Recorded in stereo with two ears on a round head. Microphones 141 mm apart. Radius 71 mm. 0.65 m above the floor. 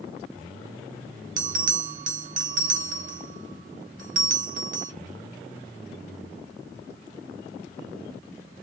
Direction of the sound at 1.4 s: 55° right (ahead or behind).